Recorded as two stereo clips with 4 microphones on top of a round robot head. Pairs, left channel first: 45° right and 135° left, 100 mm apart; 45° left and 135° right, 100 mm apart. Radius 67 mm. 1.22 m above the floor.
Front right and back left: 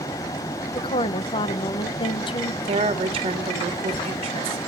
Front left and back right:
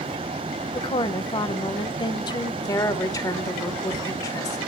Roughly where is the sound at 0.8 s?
Ahead.